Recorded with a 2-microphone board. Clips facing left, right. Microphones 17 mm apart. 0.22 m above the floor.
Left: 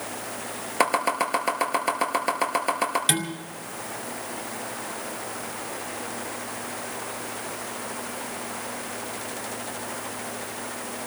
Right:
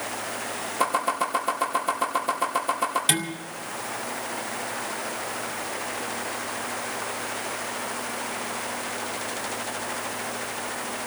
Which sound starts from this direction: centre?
Dishes clattering, at 3.1 s.